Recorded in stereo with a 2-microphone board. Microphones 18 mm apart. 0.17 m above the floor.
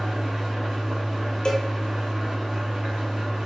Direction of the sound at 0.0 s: 15° right (ahead or behind).